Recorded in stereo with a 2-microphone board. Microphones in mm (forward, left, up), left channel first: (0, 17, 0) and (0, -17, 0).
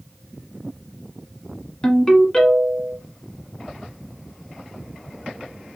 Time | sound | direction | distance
1.8 | a ringtone | 25° left (ahead or behind) | 1.1 m